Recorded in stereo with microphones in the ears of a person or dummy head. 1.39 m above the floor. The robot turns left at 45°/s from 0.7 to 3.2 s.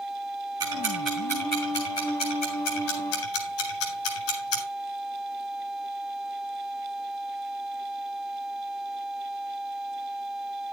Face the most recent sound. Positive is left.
turn(degrees=80)